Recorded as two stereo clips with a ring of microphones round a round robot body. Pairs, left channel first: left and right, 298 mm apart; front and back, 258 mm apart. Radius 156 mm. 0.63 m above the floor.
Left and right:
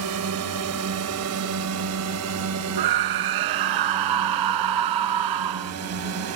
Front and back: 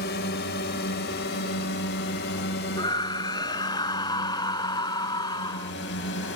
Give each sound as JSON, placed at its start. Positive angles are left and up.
{"t": 0.0, "sound": "a drone", "azimuth_deg": -55}
{"t": 2.8, "sound": "a scream", "azimuth_deg": -80}